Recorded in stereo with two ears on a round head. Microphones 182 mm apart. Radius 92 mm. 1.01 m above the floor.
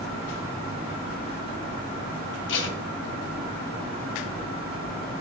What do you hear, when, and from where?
2.5 s tape being pulled: 65° left (ahead or behind), 1.6 m